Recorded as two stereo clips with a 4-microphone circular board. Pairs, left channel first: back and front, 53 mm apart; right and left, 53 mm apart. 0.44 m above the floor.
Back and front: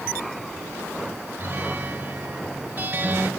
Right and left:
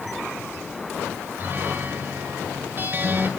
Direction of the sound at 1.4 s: 50° left.